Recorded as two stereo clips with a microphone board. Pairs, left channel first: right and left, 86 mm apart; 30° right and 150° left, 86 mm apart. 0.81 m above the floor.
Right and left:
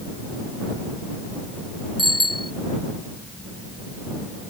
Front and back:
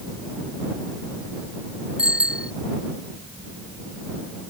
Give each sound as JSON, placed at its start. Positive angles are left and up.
{"t": 2.0, "sound": "a bicycle bell", "azimuth_deg": 70}